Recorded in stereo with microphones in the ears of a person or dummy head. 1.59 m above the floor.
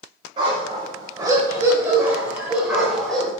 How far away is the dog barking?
About 4 m.